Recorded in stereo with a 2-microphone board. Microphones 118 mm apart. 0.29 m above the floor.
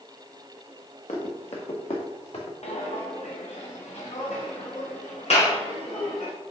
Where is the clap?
65° left (ahead or behind), 2.5 m.